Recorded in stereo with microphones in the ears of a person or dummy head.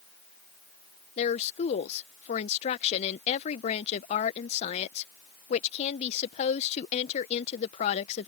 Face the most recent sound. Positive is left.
turn(degrees=35)  # may be behind; listen again after turning